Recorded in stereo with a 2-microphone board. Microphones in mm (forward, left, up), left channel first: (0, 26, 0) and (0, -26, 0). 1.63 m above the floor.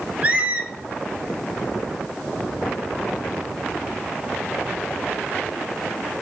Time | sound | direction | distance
0.2 | a squeak | 30° right (ahead or behind) | 1.1 m